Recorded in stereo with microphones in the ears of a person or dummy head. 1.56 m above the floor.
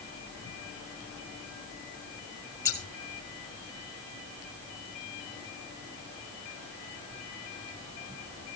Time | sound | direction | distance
2.6 | scissors | 15° left (ahead or behind) | 2.5 m